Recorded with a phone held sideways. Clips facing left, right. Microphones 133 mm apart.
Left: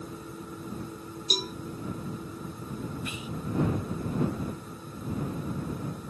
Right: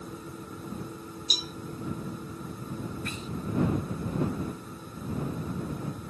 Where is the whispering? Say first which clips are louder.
Even; 10° left (ahead or behind).